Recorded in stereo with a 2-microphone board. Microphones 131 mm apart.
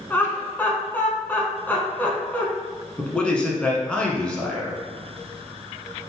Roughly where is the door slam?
No door slam in this recording.